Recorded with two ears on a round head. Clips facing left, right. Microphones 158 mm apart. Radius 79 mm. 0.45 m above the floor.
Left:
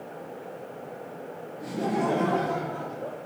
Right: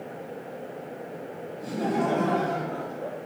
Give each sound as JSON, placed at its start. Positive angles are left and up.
{"t": 1.6, "sound": "laughter", "side_deg": 10, "distance_m": 1.4}